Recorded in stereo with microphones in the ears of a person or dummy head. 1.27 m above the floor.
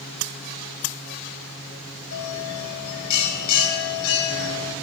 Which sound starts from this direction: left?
A bell, at 2.1 s.